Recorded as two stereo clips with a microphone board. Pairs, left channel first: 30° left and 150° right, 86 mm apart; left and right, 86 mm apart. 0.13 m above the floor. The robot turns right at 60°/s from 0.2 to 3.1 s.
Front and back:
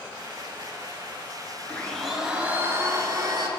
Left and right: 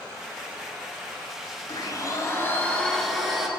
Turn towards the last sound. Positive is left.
turn(degrees=180)